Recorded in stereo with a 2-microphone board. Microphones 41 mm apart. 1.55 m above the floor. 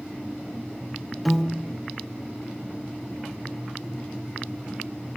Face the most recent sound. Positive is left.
turn(degrees=0)  # may be behind; listen again after turning